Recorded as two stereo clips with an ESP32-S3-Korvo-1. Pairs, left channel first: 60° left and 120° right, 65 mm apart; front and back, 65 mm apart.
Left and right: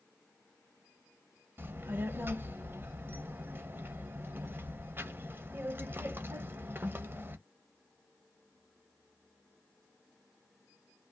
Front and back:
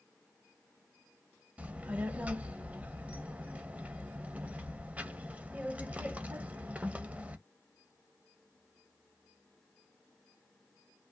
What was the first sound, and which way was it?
A child speaking, 130° right.